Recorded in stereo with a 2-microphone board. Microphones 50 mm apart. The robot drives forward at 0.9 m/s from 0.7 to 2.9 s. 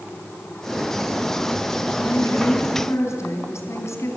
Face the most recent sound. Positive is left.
turn(degrees=75)  # may be behind; listen again after turning